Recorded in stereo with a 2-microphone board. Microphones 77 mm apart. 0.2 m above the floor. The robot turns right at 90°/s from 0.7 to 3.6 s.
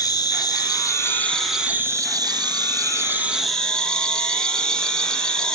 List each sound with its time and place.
0.0 s an insect: 110° left, 1.2 m; by 5.5 s 10° left, 1.2 m